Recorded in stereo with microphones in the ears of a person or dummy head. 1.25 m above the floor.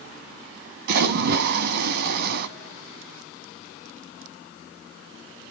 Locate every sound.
0.9 s a splash: 60° right (ahead or behind), 1.0 m